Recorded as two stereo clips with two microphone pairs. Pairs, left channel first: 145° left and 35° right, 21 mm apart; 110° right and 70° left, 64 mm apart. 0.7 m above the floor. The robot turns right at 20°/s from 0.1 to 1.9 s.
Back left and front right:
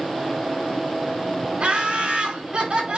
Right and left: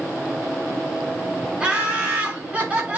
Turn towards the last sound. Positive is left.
turn(degrees=0)